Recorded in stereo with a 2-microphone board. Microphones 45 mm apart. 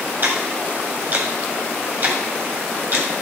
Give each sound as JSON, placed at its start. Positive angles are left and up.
{"t": 0.2, "sound": "ticking", "side_deg": -45, "distance_m": 1.6}